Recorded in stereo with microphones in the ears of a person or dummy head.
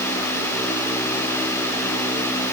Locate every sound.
Only background noise.